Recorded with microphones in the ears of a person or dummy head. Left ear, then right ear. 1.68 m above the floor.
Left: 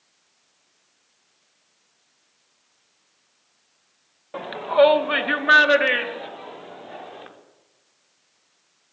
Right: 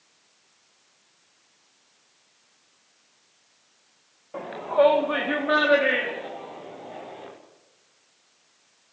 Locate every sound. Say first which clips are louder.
4.3 s a shout: left 4 dB; 90° left, 1.9 m; by 7.3 s 70° left (ahead or behind), 6 m